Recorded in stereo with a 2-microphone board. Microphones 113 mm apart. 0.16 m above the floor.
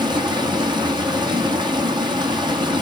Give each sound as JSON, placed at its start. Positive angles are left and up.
{"t": 0.0, "sound": "running water", "side_deg": -40, "distance_m": 1.4}